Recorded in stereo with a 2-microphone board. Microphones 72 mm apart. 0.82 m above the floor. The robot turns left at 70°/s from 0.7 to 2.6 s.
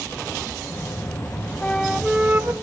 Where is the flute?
20° left, 0.9 m; by 2.5 s 45° right, 0.9 m.